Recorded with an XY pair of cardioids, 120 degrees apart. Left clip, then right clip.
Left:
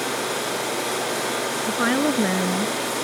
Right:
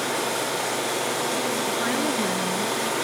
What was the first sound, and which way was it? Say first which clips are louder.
A woman speaking: left 3 dB; 40° left.